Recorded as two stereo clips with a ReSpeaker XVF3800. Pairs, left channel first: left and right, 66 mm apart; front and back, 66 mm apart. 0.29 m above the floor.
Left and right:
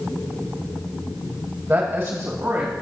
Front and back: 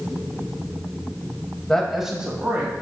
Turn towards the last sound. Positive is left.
turn(degrees=-125)